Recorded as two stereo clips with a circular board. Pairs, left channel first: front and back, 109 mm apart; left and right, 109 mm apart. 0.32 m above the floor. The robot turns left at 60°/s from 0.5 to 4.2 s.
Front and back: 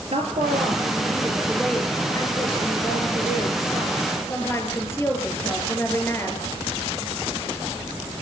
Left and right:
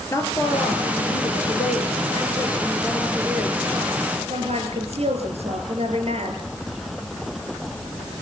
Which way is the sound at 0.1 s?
155° left.